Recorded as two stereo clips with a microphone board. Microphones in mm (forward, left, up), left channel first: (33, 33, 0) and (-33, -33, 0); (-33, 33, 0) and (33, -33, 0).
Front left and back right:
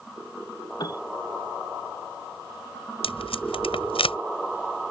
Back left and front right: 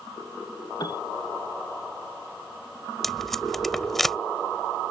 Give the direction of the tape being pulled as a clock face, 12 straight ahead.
10 o'clock.